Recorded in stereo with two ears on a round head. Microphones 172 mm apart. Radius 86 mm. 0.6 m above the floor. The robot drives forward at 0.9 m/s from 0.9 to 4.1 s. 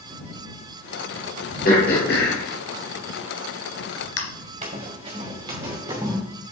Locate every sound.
1.6 s throat clearing: 50° left (ahead or behind), 3 m; by 4.2 s 80° left, 2 m
4.6 s running footsteps: 35° right (ahead or behind), 3 m; by 6.2 s 15° right (ahead or behind), 4 m